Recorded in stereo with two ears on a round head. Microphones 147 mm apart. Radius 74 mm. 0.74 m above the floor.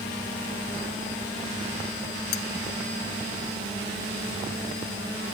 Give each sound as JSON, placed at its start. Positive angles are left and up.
{"t": 2.3, "sound": "cutlery clinking", "side_deg": 70}